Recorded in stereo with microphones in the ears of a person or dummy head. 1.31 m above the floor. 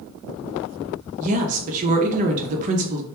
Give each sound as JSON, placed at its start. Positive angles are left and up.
{"t": 1.2, "sound": "a woman speaking", "side_deg": -40, "distance_m": 0.6}